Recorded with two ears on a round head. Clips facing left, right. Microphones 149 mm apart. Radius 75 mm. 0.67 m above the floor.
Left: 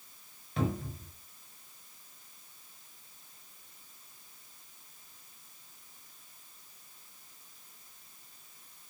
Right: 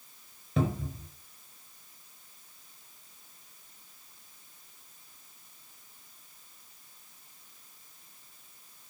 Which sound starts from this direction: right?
A cupboard door, at 0.6 s.